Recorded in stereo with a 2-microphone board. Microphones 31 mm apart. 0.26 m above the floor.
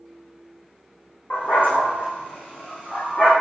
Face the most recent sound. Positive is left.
turn(degrees=50)  # may be behind; listen again after turning